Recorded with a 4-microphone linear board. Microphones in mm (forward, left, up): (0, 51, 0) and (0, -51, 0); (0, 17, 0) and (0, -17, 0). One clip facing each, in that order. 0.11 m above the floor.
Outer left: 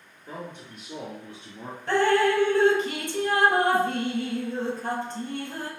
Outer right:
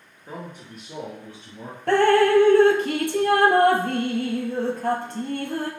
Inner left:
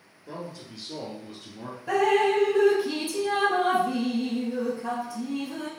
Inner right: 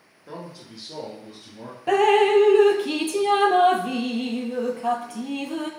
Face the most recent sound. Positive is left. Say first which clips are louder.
# outer right 5 dB, inner right 5 dB
turn(degrees=-65)  # may be behind; listen again after turning